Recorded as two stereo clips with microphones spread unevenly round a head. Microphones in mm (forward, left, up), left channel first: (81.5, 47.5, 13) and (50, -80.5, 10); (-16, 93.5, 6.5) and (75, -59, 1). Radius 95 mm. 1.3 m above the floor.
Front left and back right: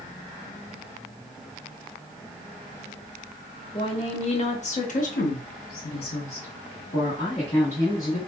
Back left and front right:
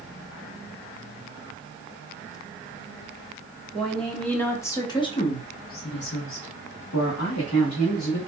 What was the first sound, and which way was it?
A woman speaking, 30° left.